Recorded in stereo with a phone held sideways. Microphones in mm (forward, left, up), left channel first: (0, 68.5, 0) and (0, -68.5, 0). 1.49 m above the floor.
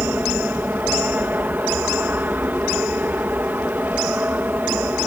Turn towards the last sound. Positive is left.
turn(degrees=-15)  # may be behind; listen again after turning